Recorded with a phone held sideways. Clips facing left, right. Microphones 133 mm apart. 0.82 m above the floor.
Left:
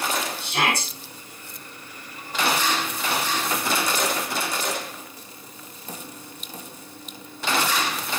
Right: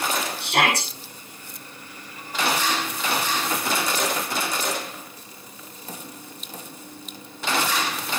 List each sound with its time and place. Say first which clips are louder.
0.4 s a shout: right 4 dB; 80° right, 6 m